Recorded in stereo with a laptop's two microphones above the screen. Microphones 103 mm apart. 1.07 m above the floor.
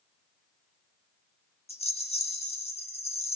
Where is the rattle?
80° left, 1.0 m.